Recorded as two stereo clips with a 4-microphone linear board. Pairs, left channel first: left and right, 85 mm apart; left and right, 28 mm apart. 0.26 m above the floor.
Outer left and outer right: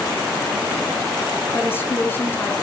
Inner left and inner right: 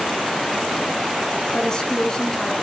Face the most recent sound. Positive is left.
turn(degrees=25)  # may be behind; listen again after turning